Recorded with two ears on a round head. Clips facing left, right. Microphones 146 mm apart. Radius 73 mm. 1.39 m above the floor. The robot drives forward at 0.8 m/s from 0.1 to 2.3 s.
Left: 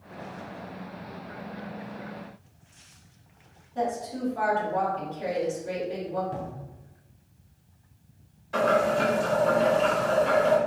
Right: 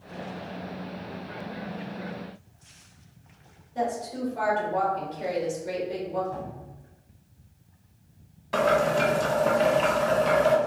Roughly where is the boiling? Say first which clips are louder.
Right 1 dB; right.